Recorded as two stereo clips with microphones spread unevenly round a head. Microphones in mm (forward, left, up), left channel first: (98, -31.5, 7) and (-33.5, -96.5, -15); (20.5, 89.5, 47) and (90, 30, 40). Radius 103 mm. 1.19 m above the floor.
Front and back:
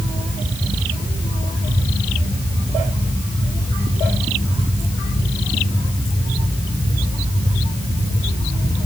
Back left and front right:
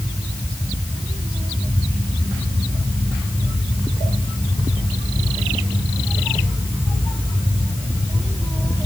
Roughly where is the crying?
I don't hear crying.